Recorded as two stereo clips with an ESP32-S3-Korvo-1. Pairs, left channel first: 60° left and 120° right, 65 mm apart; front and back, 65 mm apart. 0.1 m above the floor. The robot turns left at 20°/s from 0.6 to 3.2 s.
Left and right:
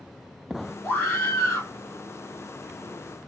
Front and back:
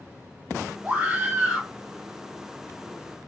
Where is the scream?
115° left, 2.5 m; by 1.7 s 95° left, 2.5 m.